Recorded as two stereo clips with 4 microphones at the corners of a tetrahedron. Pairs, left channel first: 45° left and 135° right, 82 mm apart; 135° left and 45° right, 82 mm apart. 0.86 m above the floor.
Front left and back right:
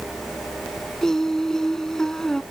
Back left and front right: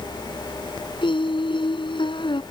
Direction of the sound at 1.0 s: 130° left.